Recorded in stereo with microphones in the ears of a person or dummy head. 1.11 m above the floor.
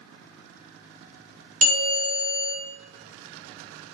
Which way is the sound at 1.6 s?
35° right (ahead or behind).